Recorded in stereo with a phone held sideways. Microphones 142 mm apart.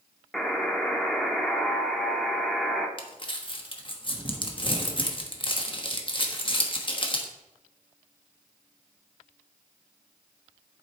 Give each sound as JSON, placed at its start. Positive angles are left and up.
{"t": 0.3, "sound": "a buzzer", "side_deg": 5, "distance_m": 1.0}
{"t": 3.0, "sound": "crumpling", "side_deg": 40, "distance_m": 1.1}